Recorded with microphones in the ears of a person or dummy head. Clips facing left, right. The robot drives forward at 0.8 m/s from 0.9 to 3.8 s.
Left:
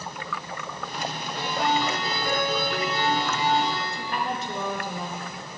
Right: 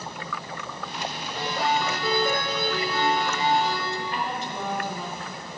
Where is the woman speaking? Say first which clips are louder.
Even; 50° left (ahead or behind), 1.1 m.